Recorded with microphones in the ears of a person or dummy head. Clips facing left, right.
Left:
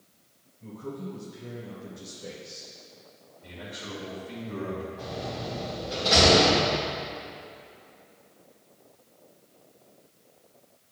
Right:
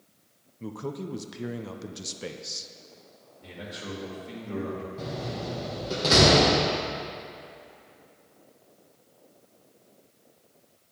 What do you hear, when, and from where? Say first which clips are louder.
0.6 s a man speaking: right 3 dB; 85° right, 0.5 m
3.4 s a man speaking: right 2 dB; 60° right (ahead or behind), 2.5 m
5.0 s a door slam: right 1 dB; 55° right (ahead or behind), 1.4 m